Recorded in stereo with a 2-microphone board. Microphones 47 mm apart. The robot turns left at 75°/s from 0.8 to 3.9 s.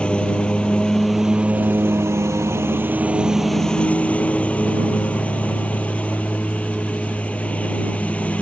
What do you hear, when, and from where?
0.0 s a lawn mower: 25° left; by 8.4 s 150° left